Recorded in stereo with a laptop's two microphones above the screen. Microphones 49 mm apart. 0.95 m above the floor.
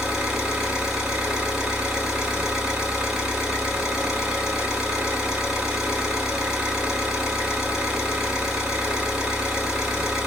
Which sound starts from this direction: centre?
An engine running, at 0.0 s.